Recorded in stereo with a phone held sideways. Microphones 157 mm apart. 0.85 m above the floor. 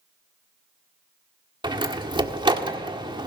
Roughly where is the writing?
I don't hear writing.